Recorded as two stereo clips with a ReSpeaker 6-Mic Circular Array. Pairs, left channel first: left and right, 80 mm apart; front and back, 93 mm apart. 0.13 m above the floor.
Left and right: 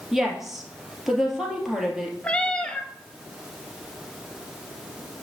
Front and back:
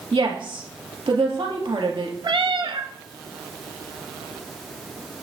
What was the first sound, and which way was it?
A woman speaking, 175° right.